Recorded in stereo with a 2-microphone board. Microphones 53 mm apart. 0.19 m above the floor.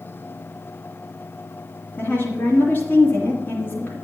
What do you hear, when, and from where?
2.0 s a woman speaking: 45° left (ahead or behind), 2.5 m